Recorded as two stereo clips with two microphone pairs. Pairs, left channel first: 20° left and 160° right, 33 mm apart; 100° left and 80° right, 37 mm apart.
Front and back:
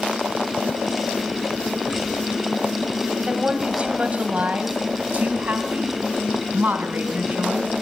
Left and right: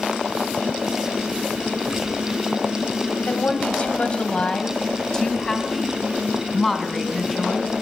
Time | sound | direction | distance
3.2 | a woman speaking | 140° left | 1.9 m